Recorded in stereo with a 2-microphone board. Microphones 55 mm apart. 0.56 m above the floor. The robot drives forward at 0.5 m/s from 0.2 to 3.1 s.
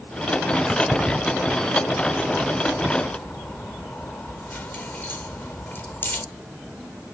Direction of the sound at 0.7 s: 15° left (ahead or behind).